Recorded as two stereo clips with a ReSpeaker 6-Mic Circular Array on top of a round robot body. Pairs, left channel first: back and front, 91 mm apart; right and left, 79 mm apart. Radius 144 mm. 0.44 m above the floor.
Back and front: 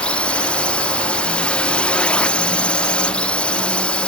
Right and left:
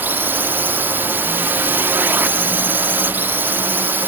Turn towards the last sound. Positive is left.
turn(degrees=115)